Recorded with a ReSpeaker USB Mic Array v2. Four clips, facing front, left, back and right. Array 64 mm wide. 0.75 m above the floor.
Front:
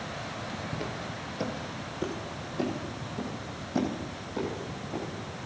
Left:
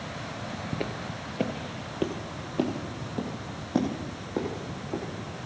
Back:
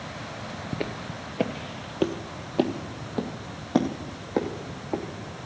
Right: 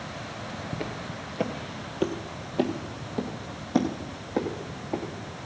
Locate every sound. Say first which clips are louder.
0.7 s footsteps: left 2 dB, back 3 dB; 160° left, 0.9 m; by 5.0 s 165° right, 3 m